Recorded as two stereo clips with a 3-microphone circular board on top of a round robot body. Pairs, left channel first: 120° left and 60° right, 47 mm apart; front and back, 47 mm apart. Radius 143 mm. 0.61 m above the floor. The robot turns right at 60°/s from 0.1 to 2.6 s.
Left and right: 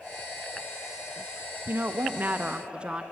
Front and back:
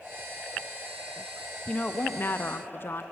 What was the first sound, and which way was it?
A woman speaking, 55° right.